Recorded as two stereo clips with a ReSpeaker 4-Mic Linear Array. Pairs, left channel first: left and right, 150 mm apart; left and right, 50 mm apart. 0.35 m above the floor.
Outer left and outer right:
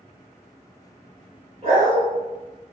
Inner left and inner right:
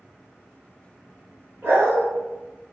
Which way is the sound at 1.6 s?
50° right (ahead or behind).